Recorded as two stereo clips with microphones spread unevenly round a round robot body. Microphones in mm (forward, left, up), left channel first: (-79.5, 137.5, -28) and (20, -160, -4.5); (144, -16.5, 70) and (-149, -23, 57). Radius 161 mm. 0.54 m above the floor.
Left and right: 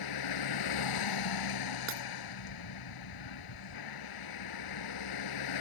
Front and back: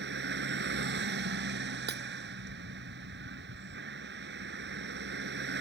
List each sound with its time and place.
0.0 s a vehicle: 125° left
1.9 s breaking glass: 120° right